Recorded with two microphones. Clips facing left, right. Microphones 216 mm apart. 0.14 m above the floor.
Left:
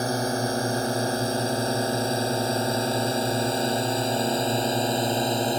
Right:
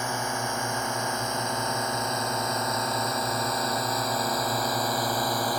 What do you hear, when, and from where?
0.0 s a drone: 35° left (ahead or behind); by 5.6 s 25° left (ahead or behind)